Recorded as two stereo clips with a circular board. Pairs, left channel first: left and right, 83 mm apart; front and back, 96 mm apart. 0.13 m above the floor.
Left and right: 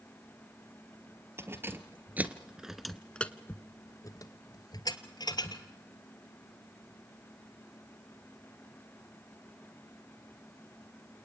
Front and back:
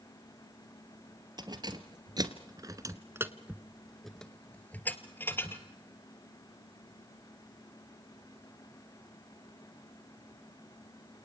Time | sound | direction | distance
1.4 | keys jangling | 145° right | 2 m